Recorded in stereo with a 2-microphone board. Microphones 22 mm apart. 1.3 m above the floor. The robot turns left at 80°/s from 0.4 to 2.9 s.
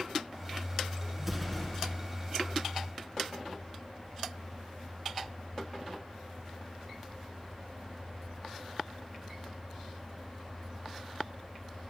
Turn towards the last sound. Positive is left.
turn(degrees=65)